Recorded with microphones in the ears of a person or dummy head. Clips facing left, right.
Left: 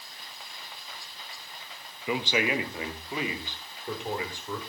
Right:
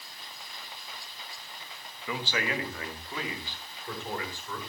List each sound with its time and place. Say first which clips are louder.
2.1 s a man speaking: left 5 dB; 15° left (ahead or behind), 1.1 m